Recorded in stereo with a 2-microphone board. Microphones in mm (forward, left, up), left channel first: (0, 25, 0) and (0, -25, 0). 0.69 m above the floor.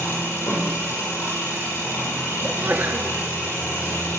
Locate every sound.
0.0 s an engine running: 65° left (ahead or behind), 5 m
2.4 s a sneeze: 40° right (ahead or behind), 1.0 m